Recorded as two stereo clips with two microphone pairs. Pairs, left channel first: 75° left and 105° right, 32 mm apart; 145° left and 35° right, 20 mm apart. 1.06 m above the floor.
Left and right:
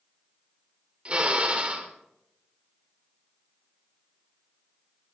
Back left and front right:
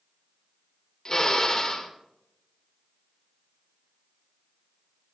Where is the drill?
155° right, 1.9 m.